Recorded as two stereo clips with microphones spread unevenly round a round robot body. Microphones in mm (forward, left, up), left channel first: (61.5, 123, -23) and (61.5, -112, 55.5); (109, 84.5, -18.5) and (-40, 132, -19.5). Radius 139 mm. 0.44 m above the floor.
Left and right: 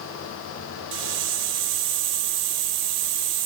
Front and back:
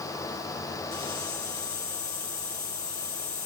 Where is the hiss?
100° right, 0.8 m.